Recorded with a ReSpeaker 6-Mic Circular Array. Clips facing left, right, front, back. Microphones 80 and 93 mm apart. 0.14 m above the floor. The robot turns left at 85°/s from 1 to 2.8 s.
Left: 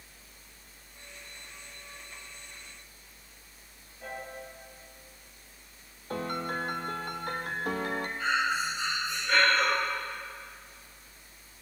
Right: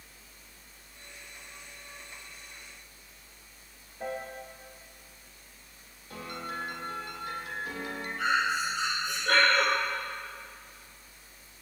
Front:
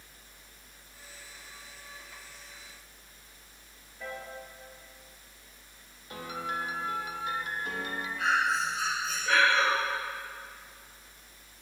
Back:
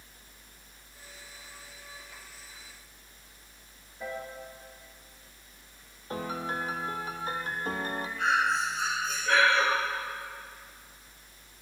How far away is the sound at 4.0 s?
About 2.0 m.